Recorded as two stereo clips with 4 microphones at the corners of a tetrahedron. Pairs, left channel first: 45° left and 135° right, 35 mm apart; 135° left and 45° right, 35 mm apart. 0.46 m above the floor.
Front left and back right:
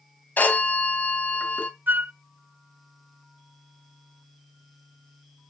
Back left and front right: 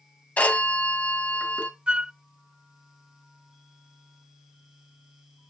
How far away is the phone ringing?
About 2 m.